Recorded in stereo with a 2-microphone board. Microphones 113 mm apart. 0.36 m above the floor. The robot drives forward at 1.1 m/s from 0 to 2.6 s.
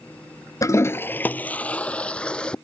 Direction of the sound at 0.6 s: 30° left (ahead or behind).